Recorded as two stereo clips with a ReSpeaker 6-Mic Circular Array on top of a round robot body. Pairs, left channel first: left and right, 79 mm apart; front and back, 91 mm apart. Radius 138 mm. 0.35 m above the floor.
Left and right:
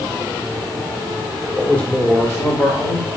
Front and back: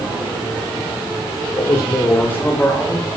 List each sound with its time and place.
1.6 s a man speaking: 10° left, 1.9 m; by 3.1 s 90° left, 2 m